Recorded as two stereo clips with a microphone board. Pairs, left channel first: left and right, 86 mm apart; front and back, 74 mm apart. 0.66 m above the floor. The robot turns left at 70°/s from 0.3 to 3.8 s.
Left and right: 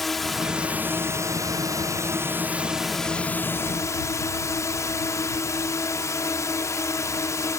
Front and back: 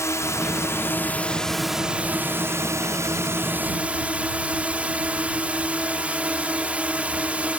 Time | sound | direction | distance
0.0 | a drone | 5° left | ?